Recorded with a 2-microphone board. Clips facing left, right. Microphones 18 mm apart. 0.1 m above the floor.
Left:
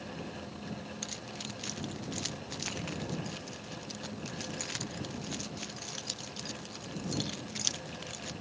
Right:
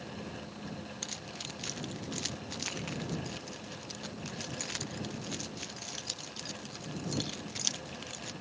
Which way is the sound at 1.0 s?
5° right (ahead or behind).